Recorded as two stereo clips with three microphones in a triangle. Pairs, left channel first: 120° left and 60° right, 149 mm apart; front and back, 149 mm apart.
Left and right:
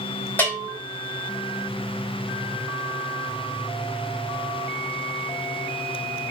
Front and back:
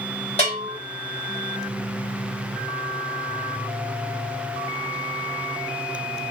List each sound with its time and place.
0.4 s a bell: 40° left, 2 m